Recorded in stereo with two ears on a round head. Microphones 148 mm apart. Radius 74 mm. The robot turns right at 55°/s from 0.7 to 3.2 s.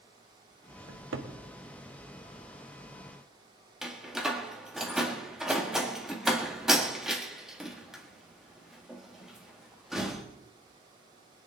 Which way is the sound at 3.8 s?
Centre (ahead or behind).